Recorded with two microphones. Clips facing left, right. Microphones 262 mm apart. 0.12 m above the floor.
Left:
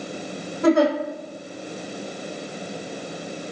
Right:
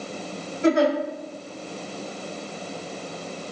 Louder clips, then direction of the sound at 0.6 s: Left 2 dB; 40° left (ahead or behind).